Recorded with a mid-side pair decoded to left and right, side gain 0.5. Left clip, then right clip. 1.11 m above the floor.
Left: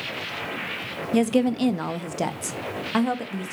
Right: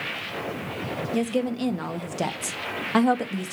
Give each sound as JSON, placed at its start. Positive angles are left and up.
{"t": 1.1, "sound": "a woman speaking", "azimuth_deg": 40, "distance_m": 1.0}